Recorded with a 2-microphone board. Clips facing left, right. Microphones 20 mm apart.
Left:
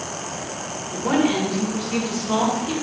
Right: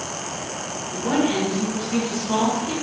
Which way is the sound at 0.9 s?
35° left (ahead or behind).